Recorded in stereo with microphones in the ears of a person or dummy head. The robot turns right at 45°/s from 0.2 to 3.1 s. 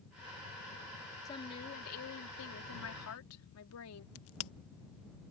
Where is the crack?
65° left (ahead or behind).